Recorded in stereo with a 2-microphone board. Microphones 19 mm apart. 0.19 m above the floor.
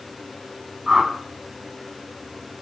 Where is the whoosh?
20° right (ahead or behind), 1.2 m.